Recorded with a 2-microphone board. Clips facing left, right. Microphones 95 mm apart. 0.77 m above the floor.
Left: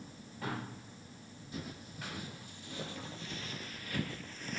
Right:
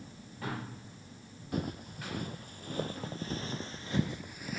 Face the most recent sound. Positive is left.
turn(degrees=-5)  # may be behind; listen again after turning